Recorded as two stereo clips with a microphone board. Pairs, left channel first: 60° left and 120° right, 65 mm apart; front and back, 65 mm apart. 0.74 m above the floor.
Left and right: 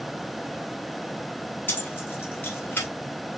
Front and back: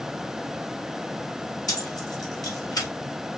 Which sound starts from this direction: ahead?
Keys jangling, at 1.7 s.